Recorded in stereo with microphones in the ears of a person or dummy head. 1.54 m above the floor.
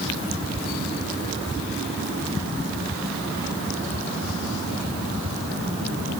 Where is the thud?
No thud in this recording.